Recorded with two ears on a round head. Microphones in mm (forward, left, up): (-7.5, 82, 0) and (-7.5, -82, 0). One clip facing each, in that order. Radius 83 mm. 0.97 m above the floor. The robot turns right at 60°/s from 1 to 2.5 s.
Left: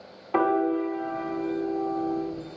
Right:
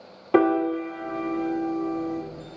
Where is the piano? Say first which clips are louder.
Right 3 dB; 130° right, 1.2 m; by 2.2 s 60° right, 1.2 m.